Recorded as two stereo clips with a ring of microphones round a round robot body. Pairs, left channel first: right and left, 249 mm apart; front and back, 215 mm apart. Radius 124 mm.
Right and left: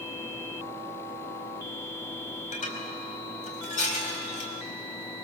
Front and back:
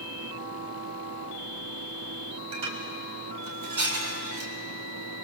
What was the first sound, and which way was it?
Dishes clattering, 155° right.